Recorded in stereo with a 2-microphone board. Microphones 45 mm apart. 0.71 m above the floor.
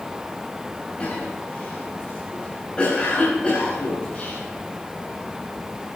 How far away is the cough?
About 4.5 m.